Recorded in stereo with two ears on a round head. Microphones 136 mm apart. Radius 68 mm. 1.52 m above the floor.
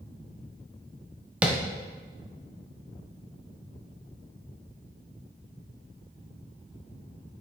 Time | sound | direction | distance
1.4 | tapping | 5° right (ahead or behind) | 1.1 m